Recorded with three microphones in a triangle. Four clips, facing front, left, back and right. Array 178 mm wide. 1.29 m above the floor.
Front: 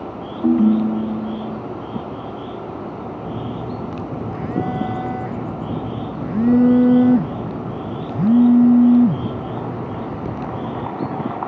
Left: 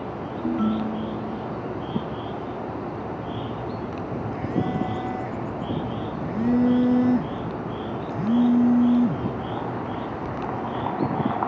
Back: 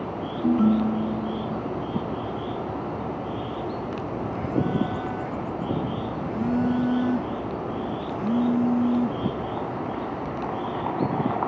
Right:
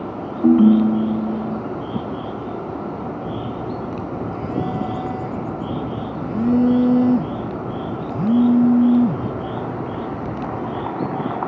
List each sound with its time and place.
0.4 s a ringtone: 70° right
3.2 s a phone buzzing: 15° right